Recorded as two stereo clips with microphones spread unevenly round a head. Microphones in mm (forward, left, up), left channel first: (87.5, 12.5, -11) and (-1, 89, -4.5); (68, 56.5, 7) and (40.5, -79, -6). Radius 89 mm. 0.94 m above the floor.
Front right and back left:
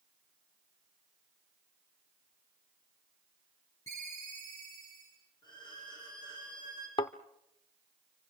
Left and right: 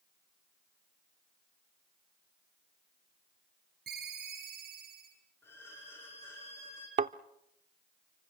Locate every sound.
3.9 s a ringtone: 115° right, 10 m
5.4 s a violin: 5° left, 9.5 m
7.0 s a thud: 90° right, 0.7 m